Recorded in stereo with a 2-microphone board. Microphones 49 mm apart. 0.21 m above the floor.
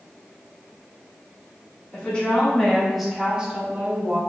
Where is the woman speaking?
25° left (ahead or behind), 1.7 m; by 4.2 s 40° right (ahead or behind), 1.4 m.